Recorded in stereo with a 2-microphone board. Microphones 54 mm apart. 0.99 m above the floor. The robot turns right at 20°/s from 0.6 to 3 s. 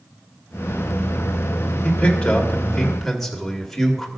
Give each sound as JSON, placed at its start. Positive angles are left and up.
{"t": 1.8, "sound": "a man speaking", "side_deg": 25, "distance_m": 2.0}